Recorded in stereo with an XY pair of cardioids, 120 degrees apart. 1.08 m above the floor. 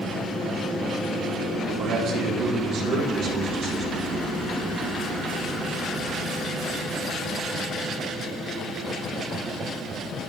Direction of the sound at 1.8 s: 70° right.